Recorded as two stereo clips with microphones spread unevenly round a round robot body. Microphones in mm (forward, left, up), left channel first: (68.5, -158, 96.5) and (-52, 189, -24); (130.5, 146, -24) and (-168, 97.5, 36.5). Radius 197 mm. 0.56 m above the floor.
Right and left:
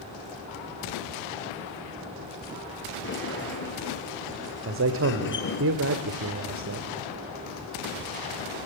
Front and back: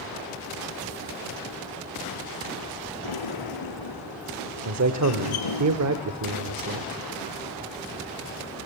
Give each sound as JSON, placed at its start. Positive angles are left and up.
{"t": 3.0, "sound": "a sliding door", "azimuth_deg": -10, "distance_m": 3.5}
{"t": 4.7, "sound": "a man speaking", "azimuth_deg": 155, "distance_m": 1.8}